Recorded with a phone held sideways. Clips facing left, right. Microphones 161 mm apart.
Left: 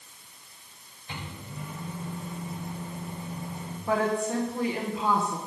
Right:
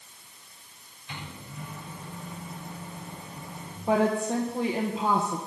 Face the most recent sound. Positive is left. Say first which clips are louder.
# right 2 dB
turn(degrees=-25)  # may be behind; listen again after turning